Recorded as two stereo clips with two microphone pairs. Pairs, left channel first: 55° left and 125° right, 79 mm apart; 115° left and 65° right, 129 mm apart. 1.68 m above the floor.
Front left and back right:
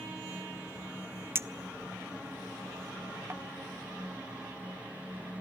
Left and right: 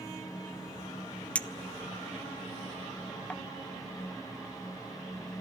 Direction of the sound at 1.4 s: 170° right.